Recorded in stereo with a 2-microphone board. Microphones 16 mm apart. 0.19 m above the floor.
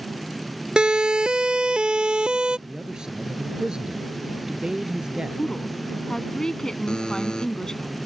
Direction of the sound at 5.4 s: 45° left (ahead or behind).